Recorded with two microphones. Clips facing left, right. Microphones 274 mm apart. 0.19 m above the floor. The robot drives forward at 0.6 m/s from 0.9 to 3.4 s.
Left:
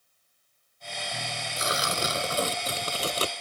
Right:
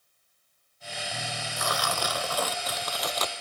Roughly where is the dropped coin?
No dropped coin in this recording.